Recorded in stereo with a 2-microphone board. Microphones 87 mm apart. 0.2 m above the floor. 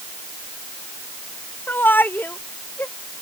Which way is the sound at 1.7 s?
25° left (ahead or behind).